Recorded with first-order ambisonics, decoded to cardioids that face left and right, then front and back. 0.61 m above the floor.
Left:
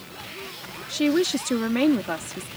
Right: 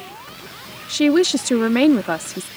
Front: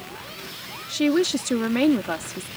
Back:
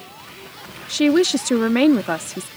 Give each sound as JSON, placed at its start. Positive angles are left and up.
{"t": 0.9, "sound": "a woman speaking", "azimuth_deg": -130}